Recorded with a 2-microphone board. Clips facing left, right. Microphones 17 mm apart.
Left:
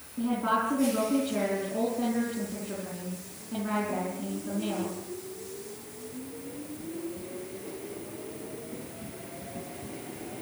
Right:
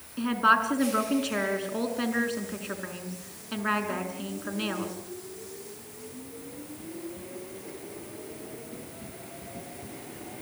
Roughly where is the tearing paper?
No tearing paper in this recording.